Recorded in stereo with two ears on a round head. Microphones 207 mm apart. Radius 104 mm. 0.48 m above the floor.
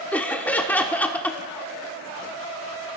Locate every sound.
0.1 s laughter: 5° left (ahead or behind), 0.7 m